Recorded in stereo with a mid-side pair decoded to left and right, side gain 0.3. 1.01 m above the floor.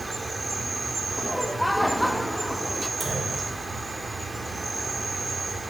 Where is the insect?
30° right, 0.9 m.